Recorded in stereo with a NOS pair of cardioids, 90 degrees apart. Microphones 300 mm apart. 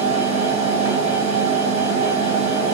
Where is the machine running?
20° right, 1.2 m.